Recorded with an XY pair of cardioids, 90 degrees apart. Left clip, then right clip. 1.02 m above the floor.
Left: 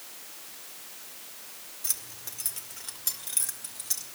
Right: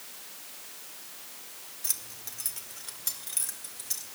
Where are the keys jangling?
Straight ahead, 1.5 m; by 4.0 s 20° left, 2.5 m.